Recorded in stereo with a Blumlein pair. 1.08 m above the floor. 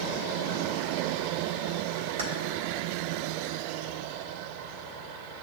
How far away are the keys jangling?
About 1.0 m.